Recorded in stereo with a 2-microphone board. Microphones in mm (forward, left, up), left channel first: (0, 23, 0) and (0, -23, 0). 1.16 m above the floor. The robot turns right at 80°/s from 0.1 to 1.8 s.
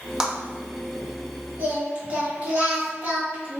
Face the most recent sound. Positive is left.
turn(degrees=-30)  # may be behind; listen again after turning